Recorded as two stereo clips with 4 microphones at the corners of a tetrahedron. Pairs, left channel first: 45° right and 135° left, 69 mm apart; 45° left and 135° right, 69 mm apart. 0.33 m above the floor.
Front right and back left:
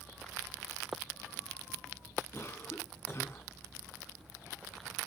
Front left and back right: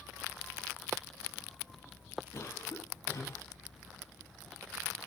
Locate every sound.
2.3 s a cough: 5° left, 2.5 m